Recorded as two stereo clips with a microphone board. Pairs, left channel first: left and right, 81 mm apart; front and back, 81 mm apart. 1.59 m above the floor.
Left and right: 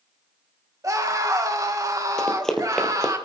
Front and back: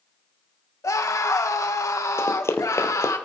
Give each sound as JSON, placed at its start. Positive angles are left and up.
{"t": 0.8, "sound": "a scream", "azimuth_deg": -45, "distance_m": 1.9}
{"t": 2.2, "sound": "running footsteps", "azimuth_deg": 10, "distance_m": 1.9}